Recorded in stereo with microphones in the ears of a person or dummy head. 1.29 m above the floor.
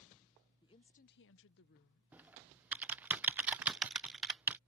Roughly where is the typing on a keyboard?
Centre.